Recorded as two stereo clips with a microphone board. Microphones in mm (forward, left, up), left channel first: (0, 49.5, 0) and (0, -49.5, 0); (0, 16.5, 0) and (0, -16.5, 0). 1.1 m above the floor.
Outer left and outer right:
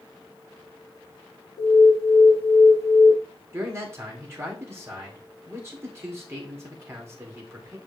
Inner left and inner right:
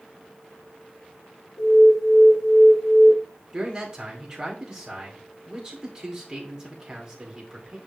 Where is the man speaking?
25° right (ahead or behind), 3 m.